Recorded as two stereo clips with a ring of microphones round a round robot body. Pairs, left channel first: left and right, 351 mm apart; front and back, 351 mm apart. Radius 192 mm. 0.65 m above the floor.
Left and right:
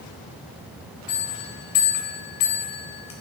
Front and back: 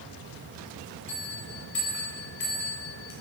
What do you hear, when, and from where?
1.1 s a bell: 60° left, 4 m